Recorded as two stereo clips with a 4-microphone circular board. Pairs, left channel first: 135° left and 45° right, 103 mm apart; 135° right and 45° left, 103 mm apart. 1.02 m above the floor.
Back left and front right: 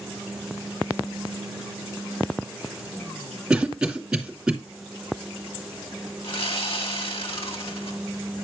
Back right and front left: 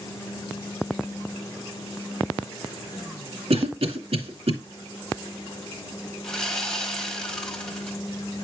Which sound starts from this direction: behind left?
Sawing, at 6.2 s.